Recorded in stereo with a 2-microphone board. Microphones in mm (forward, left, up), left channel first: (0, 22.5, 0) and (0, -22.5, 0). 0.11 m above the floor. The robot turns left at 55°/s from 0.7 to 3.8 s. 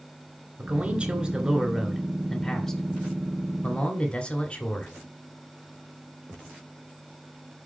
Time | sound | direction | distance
0.6 | a man speaking | 25° right (ahead or behind) | 1.7 m